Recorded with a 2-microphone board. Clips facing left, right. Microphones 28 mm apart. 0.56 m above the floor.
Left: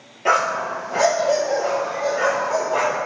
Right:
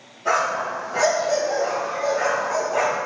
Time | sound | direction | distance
0.2 | a dog barking | 60° left (ahead or behind) | 3 m